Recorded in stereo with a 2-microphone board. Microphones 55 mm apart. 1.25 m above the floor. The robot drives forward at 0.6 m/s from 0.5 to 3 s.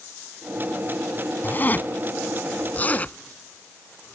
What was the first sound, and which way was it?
A zipper, 35° left (ahead or behind).